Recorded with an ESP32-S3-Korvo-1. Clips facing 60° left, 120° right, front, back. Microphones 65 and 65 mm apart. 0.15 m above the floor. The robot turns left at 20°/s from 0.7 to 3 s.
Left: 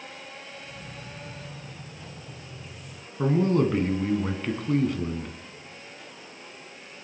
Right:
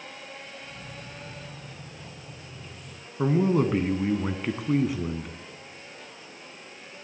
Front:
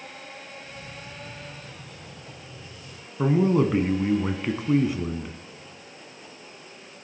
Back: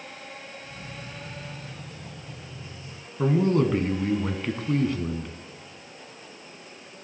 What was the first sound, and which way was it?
A man speaking, 55° right.